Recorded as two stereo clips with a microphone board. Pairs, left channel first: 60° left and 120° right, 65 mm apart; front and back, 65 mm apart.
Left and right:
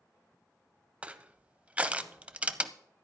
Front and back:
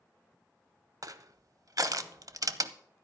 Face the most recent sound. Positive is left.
turn(degrees=170)